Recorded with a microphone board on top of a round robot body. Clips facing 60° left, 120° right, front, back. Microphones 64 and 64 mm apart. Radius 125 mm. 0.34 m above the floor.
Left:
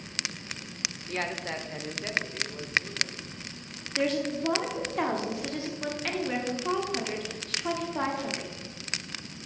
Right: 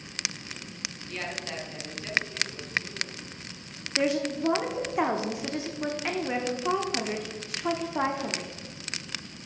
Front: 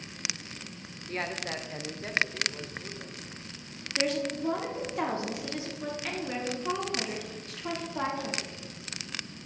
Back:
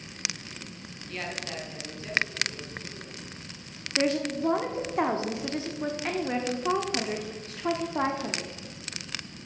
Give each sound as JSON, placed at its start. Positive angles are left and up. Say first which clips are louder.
{"t": 1.1, "sound": "a man speaking", "louder": "left 3 dB, front 2 dB", "azimuth_deg": 40, "distance_m": 1.3}
{"t": 4.0, "sound": "a woman speaking", "louder": "right 1 dB, back 3 dB", "azimuth_deg": 180, "distance_m": 1.3}